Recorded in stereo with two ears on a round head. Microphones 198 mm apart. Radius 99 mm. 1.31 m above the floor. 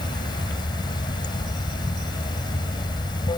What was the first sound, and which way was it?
Running water, 20° left (ahead or behind).